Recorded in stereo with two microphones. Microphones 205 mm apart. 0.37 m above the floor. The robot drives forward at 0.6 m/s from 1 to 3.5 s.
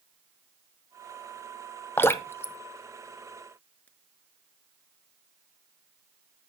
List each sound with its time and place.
2.0 s dripping: 10° left (ahead or behind), 0.6 m